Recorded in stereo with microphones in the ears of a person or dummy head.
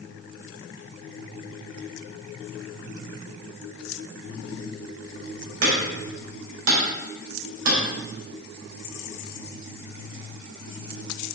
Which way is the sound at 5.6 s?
80° right.